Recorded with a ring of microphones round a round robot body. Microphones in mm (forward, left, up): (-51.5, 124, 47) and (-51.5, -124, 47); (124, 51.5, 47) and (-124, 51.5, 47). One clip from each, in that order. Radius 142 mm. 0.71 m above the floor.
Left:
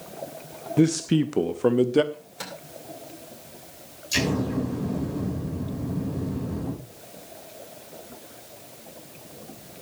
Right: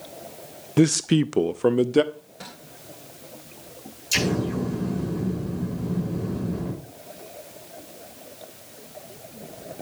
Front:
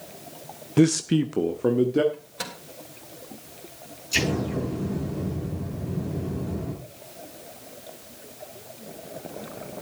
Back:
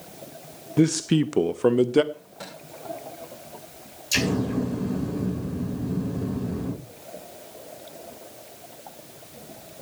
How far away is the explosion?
About 8 m.